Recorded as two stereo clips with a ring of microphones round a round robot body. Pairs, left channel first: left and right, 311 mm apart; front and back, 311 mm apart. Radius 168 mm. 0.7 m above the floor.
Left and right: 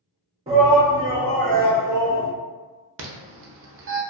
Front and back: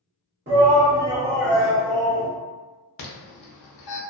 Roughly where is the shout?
Behind right.